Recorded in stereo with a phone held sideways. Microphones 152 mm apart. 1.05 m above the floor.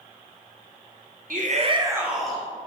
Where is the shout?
70° right (ahead or behind), 0.6 m; by 2.5 s 10° left (ahead or behind), 0.7 m.